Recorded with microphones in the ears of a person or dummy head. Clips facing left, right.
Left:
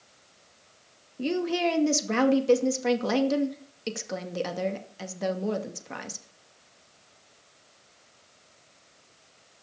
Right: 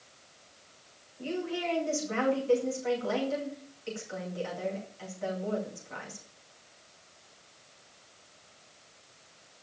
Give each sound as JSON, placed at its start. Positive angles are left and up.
{"t": 1.2, "sound": "a woman speaking", "side_deg": 80, "distance_m": 2.5}